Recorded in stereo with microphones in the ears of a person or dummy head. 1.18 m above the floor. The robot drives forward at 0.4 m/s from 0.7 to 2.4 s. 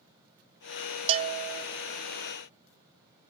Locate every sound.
1.1 s a bell: 30° right (ahead or behind), 0.8 m; by 1.6 s 40° right (ahead or behind), 0.6 m